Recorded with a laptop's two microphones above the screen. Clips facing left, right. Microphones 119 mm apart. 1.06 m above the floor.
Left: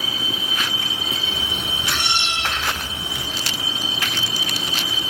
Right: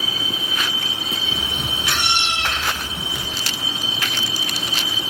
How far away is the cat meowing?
About 3.5 m.